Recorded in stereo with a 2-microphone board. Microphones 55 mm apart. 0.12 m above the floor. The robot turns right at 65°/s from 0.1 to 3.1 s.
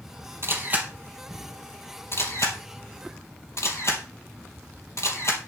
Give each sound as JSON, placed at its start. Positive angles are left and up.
{"t": 0.4, "sound": "a camera shutter", "side_deg": -50, "distance_m": 3.0}